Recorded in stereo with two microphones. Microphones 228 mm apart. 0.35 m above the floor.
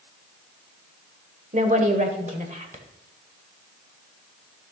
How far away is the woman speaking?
About 1.4 m.